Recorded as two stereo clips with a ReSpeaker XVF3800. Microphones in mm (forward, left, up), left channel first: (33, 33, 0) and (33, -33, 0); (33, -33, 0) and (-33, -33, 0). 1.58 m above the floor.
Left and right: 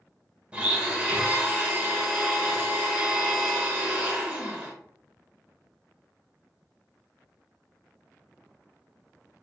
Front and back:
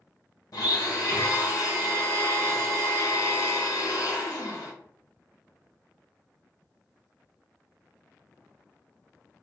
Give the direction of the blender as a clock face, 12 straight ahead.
1 o'clock.